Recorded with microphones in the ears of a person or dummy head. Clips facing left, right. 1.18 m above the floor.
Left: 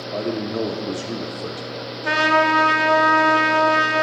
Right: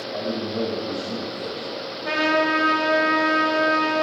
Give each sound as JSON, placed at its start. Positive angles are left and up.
{"t": 0.1, "sound": "a man speaking", "side_deg": 55, "distance_m": 0.7}
{"t": 2.0, "sound": "a trumpet", "side_deg": 60, "distance_m": 1.4}